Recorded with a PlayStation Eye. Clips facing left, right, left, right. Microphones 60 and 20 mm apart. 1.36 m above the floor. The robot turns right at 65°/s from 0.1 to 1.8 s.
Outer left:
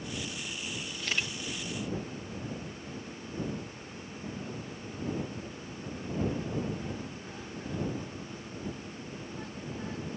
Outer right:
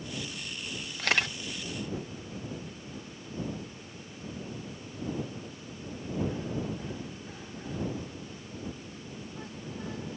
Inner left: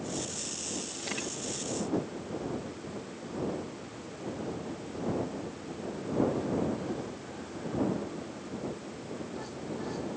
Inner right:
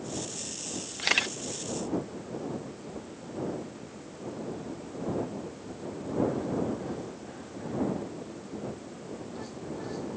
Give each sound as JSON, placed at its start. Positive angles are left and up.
{"t": 1.0, "sound": "a camera shutter", "side_deg": -70}